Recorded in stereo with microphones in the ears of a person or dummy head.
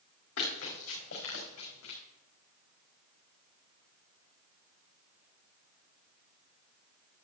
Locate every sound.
0.4 s running footsteps: 70° left (ahead or behind), 5 m